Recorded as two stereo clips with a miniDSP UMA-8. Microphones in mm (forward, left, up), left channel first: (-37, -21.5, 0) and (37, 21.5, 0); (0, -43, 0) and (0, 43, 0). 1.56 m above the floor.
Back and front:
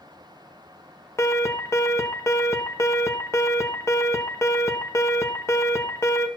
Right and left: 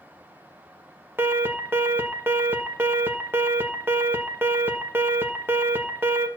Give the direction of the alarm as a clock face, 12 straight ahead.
7 o'clock.